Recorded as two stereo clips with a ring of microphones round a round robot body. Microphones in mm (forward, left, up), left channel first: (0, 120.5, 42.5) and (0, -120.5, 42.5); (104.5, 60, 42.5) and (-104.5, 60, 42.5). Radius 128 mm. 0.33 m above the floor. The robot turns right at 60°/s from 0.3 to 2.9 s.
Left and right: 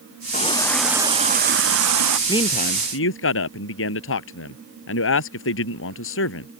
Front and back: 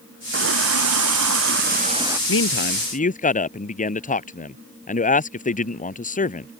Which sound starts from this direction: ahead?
A man speaking, at 2.3 s.